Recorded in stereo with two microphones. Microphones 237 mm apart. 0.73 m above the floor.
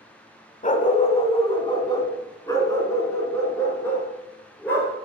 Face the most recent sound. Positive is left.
turn(degrees=10)  # may be behind; listen again after turning